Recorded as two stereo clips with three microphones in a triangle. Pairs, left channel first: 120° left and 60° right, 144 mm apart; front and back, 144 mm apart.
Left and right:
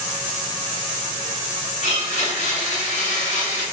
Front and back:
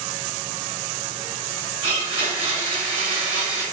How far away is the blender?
About 1.7 m.